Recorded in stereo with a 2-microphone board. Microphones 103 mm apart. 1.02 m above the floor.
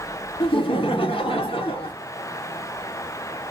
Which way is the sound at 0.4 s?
65° left (ahead or behind).